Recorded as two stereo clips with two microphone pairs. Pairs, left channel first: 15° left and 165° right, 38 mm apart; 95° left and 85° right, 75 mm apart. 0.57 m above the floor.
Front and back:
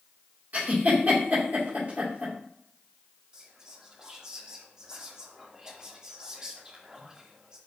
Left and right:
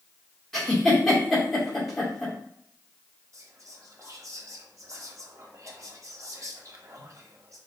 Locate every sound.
0.5 s a giggle: straight behind, 1.8 m
3.3 s whispering: 95° right, 0.8 m